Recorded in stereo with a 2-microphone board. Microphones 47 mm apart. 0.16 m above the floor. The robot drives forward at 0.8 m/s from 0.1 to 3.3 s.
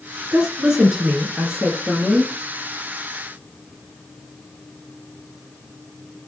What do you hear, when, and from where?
0.3 s a woman speaking: 20° right (ahead or behind), 1.6 m; by 2.3 s 10° right (ahead or behind), 3 m